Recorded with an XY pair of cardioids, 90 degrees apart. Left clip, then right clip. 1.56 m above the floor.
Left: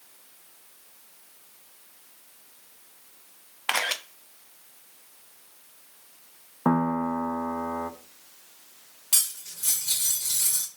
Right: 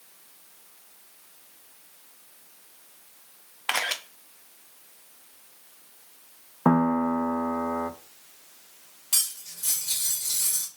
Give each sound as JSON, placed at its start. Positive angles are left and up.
{"t": 3.7, "sound": "a camera shutter", "azimuth_deg": 10, "distance_m": 0.6}
{"t": 6.7, "sound": "a piano", "azimuth_deg": -25, "distance_m": 0.6}
{"t": 9.1, "sound": "cutlery clinking", "azimuth_deg": 25, "distance_m": 2.0}